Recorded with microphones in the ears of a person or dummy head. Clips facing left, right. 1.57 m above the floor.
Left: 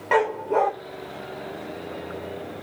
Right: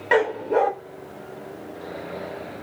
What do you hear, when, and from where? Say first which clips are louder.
0.1 s a dog barking: right 2 dB; 15° right (ahead or behind), 1.0 m